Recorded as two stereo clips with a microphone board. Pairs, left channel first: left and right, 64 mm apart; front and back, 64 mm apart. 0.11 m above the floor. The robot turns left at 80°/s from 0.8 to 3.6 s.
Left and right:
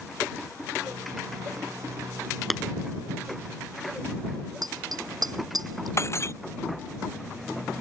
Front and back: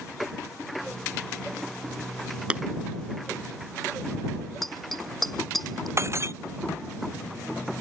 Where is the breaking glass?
135° left.